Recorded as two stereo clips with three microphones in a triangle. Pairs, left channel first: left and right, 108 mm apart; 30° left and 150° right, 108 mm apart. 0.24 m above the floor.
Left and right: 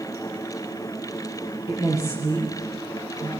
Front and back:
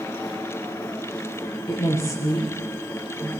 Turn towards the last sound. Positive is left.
turn(degrees=-30)